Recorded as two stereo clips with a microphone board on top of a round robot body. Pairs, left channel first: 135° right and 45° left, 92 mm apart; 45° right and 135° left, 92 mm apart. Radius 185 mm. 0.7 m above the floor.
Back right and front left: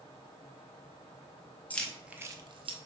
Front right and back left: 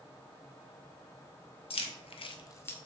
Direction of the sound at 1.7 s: 60° right.